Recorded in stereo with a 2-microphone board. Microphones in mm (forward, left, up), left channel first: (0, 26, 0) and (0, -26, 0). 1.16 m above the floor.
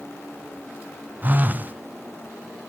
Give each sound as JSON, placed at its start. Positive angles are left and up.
{"t": 1.2, "sound": "a phone buzzing", "side_deg": -35, "distance_m": 0.5}